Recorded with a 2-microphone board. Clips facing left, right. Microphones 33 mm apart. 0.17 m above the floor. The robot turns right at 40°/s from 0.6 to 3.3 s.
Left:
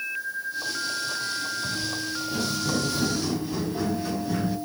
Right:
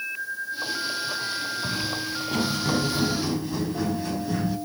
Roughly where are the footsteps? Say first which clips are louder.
Right 1 dB; right.